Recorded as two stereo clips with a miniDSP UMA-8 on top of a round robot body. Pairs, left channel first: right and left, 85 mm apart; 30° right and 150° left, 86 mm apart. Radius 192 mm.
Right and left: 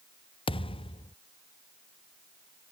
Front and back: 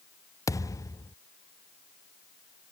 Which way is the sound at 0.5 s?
80° right.